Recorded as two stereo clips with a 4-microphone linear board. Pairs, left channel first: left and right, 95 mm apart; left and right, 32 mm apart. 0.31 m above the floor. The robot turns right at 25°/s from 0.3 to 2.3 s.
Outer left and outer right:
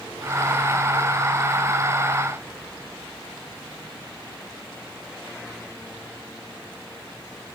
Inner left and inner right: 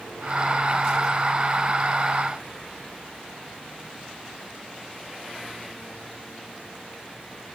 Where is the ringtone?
No ringtone in this recording.